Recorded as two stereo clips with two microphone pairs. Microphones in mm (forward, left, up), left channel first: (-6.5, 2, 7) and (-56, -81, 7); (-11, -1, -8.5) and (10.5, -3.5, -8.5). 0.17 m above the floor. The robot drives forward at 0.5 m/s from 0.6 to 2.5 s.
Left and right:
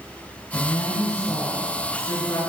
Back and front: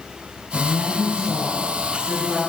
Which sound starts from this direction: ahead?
A woman speaking, at 0.5 s.